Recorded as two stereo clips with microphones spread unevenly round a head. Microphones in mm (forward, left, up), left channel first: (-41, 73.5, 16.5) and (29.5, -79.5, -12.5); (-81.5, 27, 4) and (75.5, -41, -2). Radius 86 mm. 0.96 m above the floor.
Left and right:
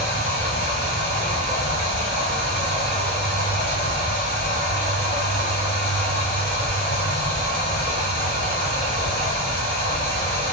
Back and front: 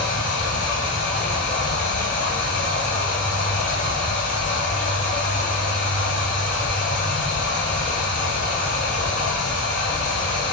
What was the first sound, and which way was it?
Running water, 75° left.